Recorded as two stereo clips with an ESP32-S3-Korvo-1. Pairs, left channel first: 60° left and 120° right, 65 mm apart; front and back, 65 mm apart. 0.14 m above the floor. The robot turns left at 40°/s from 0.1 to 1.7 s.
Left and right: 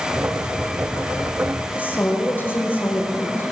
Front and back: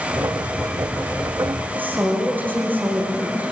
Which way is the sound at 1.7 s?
120° left.